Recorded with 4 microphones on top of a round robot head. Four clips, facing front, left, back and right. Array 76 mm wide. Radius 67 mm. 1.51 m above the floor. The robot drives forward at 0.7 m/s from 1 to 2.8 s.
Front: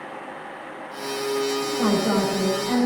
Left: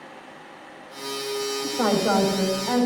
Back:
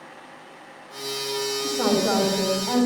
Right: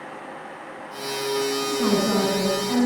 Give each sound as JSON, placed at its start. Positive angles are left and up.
{"t": 1.6, "sound": "a woman speaking", "azimuth_deg": 110, "distance_m": 7.0}